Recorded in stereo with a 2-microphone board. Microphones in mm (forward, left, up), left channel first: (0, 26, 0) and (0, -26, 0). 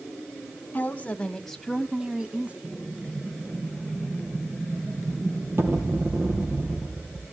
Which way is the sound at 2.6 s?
50° right (ahead or behind).